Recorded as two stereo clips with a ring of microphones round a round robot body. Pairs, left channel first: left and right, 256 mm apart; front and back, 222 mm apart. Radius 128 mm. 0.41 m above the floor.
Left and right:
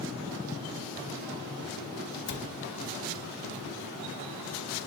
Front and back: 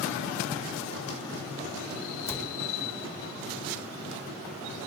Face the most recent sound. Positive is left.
turn(degrees=70)